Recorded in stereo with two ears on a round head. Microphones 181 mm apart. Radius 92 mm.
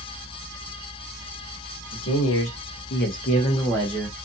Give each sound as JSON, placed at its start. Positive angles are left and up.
{"t": 1.9, "sound": "a man speaking", "side_deg": 80, "distance_m": 1.2}